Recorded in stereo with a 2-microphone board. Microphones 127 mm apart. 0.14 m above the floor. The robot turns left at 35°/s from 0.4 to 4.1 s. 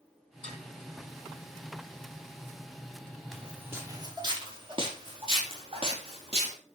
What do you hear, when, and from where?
0.4 s dishes clattering: 55° left (ahead or behind), 3.5 m; by 0.6 s 65° left (ahead or behind), 3.5 m
3.3 s footsteps: centre (ahead or behind), 3 m; by 6.5 s 50° right (ahead or behind), 5 m